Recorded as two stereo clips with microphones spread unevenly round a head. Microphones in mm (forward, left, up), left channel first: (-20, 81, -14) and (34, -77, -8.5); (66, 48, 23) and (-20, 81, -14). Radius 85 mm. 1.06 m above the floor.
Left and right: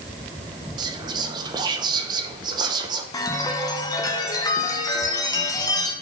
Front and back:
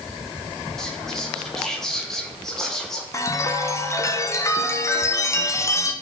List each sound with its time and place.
0.8 s whispering: 130° right, 0.7 m
3.1 s a chime: 50° left, 0.8 m